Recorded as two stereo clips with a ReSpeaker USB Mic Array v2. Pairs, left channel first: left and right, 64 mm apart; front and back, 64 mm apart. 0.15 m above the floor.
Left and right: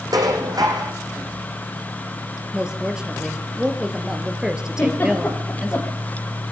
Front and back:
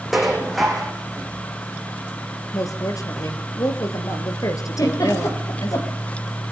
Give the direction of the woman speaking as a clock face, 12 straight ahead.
12 o'clock.